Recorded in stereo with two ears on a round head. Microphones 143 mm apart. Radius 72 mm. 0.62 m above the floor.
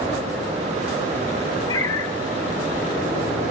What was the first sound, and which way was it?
A cat meowing, 25° left (ahead or behind).